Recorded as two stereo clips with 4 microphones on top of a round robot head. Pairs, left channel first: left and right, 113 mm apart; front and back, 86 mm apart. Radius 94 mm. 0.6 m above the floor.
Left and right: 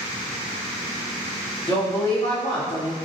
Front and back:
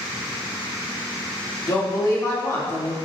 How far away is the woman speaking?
About 1.9 m.